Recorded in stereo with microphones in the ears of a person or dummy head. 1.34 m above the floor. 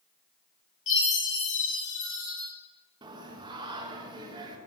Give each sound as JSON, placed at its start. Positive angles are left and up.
{"t": 0.9, "sound": "a chime", "side_deg": 35, "distance_m": 4.0}
{"t": 3.0, "sound": "singing", "side_deg": -20, "distance_m": 1.2}